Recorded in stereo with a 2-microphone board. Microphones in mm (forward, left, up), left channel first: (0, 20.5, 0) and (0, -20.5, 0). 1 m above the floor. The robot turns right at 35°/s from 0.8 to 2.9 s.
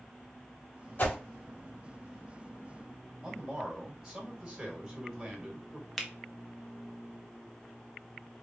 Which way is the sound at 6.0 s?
5° left (ahead or behind).